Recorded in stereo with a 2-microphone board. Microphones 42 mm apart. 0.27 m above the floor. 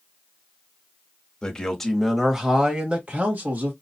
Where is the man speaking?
20° left (ahead or behind), 1.1 m; by 3.7 s 45° right (ahead or behind), 1.5 m.